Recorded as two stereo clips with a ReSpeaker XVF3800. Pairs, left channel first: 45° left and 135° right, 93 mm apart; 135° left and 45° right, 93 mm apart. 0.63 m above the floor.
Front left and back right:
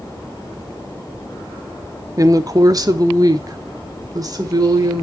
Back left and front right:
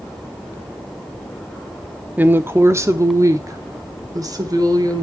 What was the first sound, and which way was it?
A woman speaking, 110° right.